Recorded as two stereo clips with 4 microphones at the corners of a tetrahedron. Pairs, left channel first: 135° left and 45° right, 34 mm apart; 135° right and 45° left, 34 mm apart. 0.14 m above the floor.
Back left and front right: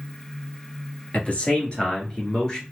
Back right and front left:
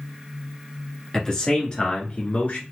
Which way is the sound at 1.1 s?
160° left.